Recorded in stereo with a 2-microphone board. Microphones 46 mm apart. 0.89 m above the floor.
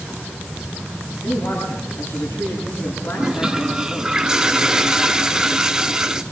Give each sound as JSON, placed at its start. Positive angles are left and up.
{"t": 1.2, "sound": "a man speaking", "side_deg": 85, "distance_m": 8.5}
{"t": 3.1, "sound": "a toilet flushing", "side_deg": -15, "distance_m": 0.9}